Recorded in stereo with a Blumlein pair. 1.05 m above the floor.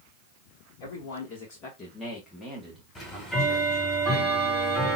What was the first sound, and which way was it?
A man speaking, 50° left.